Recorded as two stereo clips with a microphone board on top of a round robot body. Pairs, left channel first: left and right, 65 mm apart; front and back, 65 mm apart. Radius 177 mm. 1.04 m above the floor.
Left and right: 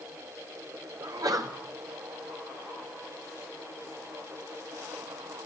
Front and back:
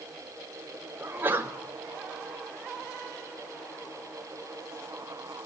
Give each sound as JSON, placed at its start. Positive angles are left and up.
{"t": 1.0, "sound": "a sneeze", "azimuth_deg": -120, "distance_m": 5.0}